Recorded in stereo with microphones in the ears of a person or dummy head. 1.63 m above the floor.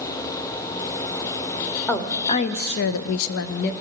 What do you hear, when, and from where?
1.9 s a woman speaking: 10° left (ahead or behind), 0.9 m; by 3.7 s 60° left (ahead or behind), 0.7 m